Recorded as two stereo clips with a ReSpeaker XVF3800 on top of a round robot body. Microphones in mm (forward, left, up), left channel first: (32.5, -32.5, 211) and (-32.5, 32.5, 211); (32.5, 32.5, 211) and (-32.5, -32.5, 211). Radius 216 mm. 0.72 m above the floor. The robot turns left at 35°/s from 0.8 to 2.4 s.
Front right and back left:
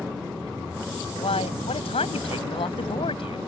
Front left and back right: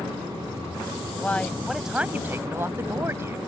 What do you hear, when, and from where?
1.2 s a man speaking: 25° right; by 3.4 s 70° right